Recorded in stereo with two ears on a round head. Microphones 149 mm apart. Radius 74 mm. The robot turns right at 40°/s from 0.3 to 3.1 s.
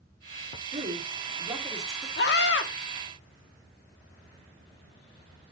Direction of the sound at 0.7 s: 45° right.